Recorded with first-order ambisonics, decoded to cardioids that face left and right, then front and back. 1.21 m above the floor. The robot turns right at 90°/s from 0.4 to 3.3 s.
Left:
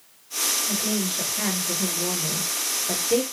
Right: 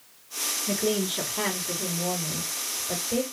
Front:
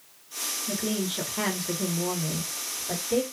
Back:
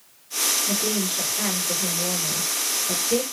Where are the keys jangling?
I don't hear keys jangling.